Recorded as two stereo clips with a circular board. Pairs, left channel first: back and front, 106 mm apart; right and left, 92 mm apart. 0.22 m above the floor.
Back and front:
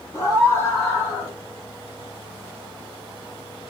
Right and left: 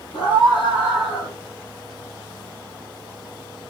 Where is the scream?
120° right, 7.5 m; by 1.4 s 125° right, 7 m.